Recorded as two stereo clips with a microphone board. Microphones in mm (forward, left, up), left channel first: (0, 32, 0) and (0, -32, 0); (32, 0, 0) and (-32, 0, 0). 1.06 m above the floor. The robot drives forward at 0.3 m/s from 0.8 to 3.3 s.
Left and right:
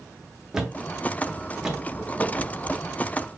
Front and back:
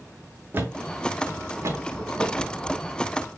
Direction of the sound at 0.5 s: 165° right.